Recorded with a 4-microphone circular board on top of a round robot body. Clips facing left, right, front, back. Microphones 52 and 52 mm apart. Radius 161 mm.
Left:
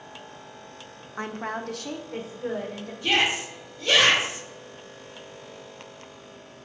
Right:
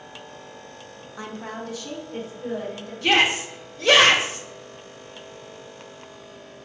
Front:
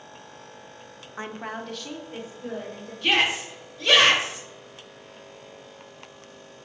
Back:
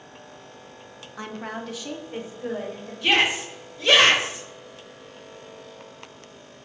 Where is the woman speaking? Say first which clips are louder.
Left 3 dB, even; 55° left, 1.1 m; by 2.9 s 120° left, 2.5 m.